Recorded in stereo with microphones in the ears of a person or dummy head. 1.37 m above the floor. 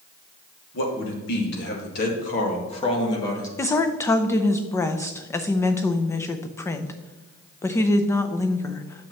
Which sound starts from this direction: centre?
A woman speaking, at 3.6 s.